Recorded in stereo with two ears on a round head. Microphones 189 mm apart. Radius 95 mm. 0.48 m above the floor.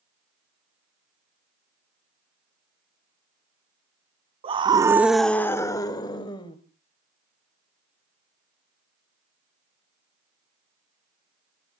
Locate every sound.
4.4 s a scream: 30° right (ahead or behind), 0.9 m; by 6.6 s 25° left (ahead or behind), 2 m